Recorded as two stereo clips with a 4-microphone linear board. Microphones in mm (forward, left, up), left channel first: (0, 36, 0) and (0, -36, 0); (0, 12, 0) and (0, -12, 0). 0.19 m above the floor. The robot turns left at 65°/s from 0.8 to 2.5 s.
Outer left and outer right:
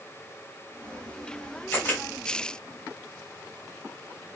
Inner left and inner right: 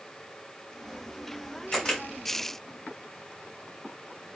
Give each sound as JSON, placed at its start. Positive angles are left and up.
{"t": 1.7, "sound": "a camera shutter", "side_deg": 25, "distance_m": 1.6}